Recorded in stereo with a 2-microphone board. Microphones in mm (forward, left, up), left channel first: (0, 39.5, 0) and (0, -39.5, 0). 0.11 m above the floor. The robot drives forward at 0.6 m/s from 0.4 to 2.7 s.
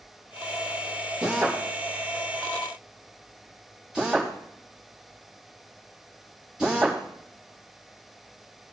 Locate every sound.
1.2 s a drill: 10° right (ahead or behind), 4 m